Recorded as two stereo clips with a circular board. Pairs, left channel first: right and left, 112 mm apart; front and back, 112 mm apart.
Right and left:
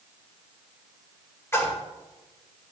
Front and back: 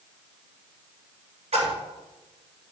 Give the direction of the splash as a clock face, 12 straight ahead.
5 o'clock.